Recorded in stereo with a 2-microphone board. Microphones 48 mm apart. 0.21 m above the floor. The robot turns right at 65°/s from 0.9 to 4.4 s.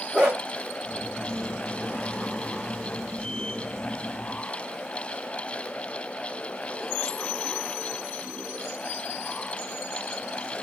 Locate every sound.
0.1 s a dog barking: 30° right (ahead or behind), 5 m